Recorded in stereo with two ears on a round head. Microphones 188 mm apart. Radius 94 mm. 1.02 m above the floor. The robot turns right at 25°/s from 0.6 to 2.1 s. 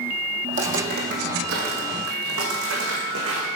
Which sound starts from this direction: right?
Footsteps, at 0.5 s.